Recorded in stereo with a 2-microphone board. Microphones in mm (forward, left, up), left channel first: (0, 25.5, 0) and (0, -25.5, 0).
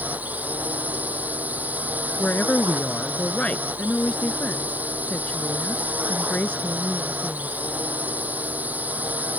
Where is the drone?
35° right (ahead or behind).